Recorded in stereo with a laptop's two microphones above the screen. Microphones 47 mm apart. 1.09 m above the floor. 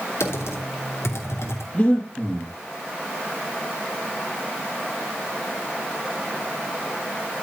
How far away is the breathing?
About 5.5 m.